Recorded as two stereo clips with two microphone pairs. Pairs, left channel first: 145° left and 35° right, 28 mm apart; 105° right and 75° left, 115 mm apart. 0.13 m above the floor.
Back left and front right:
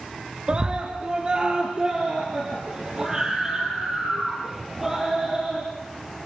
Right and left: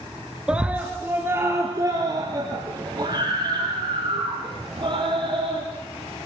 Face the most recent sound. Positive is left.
turn(degrees=35)